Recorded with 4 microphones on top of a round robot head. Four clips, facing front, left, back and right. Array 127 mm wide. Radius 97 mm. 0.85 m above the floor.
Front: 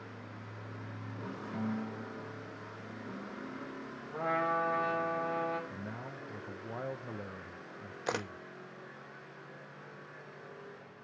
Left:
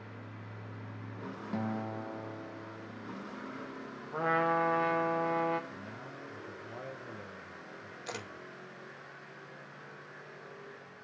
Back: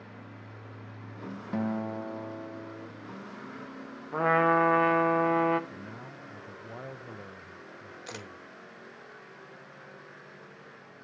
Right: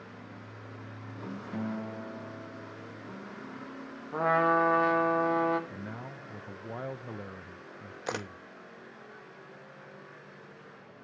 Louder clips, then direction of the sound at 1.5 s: Even, back 7 dB; 165° left.